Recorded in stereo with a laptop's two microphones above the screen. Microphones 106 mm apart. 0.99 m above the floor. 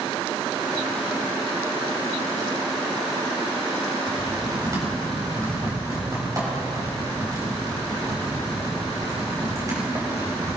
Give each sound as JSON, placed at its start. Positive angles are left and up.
{"t": 4.1, "sound": "typing on a keyboard", "side_deg": -35, "distance_m": 3.5}